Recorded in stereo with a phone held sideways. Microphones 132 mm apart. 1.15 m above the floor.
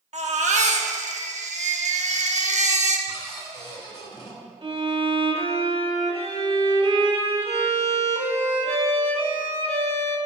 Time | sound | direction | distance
0.1 | a baby crying | 65° right (ahead or behind) | 1.0 m
3.1 | a cupboard door | 35° left (ahead or behind) | 2 m
4.6 | a violin | 45° right (ahead or behind) | 1.7 m